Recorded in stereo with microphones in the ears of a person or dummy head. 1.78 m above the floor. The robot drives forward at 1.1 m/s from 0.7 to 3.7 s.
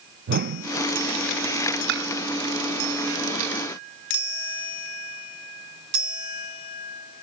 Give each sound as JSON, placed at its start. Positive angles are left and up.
{"t": 0.3, "sound": "a whoosh", "side_deg": -55}
{"t": 1.9, "sound": "dishes clattering", "side_deg": -70}